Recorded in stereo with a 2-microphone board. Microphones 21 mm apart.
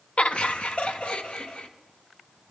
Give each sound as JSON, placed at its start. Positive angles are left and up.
{"t": 0.2, "sound": "laughter", "side_deg": 65, "distance_m": 0.8}